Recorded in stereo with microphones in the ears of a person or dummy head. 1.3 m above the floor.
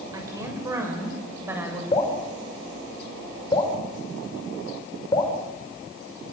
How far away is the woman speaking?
About 6 m.